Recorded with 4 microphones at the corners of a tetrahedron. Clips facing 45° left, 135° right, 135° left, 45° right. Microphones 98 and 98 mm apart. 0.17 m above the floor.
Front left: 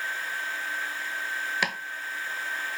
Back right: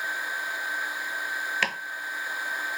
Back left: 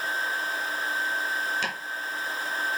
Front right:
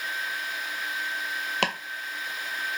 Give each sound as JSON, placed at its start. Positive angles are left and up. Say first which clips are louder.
{"t": 1.6, "sound": "chopping", "louder": "even, front right 4 dB", "azimuth_deg": -30, "distance_m": 0.7}